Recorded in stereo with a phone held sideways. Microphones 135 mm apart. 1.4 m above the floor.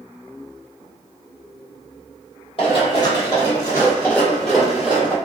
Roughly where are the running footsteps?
Left.